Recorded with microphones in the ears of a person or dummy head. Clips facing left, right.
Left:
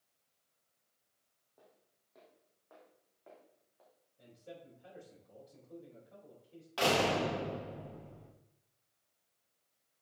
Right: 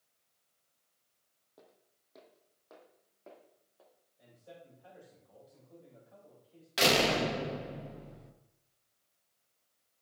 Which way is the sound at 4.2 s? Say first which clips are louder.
Left 2 dB; 40° left (ahead or behind).